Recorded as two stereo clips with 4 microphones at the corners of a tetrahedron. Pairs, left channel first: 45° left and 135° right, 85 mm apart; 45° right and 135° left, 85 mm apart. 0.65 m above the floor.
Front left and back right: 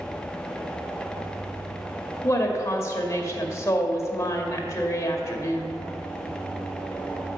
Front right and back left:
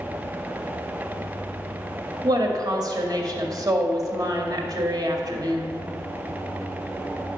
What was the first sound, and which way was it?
A woman speaking, 100° left.